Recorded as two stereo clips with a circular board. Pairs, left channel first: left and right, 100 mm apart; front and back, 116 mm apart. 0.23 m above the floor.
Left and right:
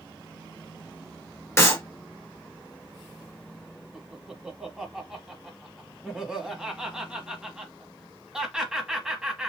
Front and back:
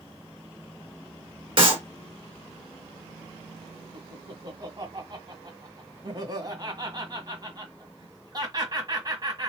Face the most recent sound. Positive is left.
turn(degrees=-170)